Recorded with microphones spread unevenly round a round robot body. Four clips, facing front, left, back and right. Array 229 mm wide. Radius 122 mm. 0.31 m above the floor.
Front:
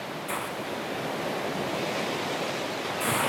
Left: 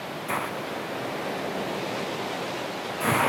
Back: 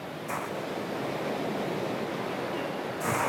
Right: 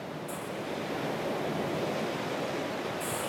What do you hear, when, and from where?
0.3 s a hiss: 80° left